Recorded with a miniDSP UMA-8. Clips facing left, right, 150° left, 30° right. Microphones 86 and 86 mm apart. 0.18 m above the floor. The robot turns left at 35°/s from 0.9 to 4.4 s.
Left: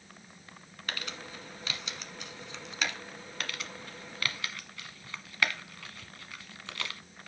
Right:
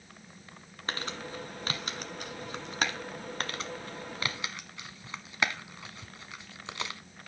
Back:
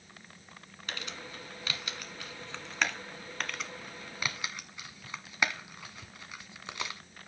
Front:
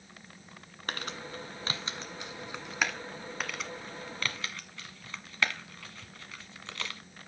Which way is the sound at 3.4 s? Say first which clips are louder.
Right 2 dB, even; 110° right.